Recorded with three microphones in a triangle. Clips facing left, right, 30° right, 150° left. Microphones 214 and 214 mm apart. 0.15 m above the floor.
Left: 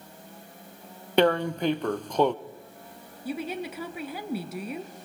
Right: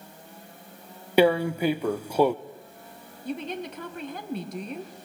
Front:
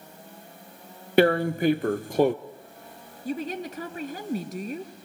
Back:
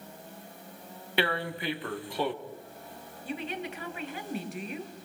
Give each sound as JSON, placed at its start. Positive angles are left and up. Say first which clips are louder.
{"t": 1.2, "sound": "tearing paper", "louder": "right 2 dB, front 11 dB", "azimuth_deg": -10, "distance_m": 0.6}
{"t": 3.2, "sound": "a woman speaking", "louder": "even, front 5 dB", "azimuth_deg": 10, "distance_m": 2.0}